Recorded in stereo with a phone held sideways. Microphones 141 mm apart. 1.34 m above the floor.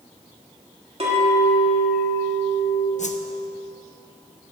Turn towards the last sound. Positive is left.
turn(degrees=60)  # may be behind; listen again after turning